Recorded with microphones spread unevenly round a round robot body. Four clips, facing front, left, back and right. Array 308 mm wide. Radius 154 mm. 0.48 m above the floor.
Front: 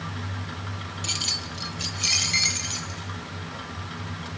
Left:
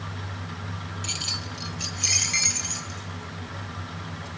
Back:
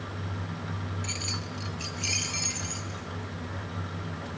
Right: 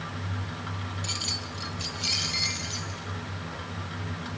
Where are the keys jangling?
25° left, 0.8 m; by 4.3 s 35° left, 4 m.